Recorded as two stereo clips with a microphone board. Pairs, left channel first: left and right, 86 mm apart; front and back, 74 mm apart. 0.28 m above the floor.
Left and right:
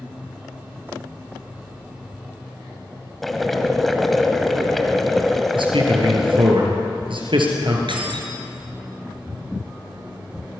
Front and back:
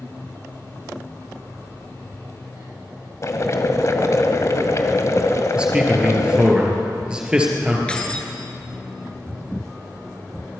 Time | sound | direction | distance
3.2 | boiling | 5° left | 1.5 m
5.5 | a man speaking | 105° right | 4.5 m
7.9 | keys jangling | 75° right | 2.5 m